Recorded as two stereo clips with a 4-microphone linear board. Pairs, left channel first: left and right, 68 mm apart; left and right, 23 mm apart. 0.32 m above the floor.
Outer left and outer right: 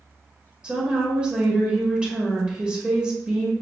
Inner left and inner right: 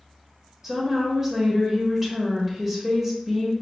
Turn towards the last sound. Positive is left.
turn(degrees=-15)  # may be behind; listen again after turning